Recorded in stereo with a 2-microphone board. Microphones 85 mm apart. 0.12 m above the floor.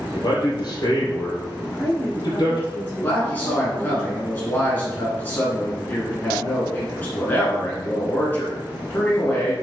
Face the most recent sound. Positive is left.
turn(degrees=20)  # may be behind; listen again after turning